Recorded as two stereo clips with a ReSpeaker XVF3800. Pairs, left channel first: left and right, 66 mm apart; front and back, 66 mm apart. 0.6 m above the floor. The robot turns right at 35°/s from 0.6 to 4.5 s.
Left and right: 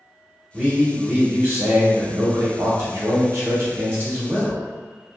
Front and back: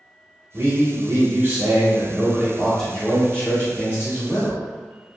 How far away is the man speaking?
About 1.0 m.